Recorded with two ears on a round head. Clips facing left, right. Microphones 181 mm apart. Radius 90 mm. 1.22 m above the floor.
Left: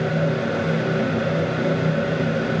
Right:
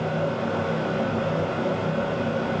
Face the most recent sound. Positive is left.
No sound to turn to.